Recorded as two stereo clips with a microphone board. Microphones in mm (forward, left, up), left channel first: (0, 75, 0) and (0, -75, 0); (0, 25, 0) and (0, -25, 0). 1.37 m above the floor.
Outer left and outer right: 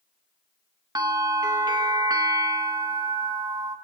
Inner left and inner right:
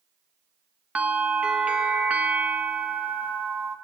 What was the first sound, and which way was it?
A bell, 25° right (ahead or behind).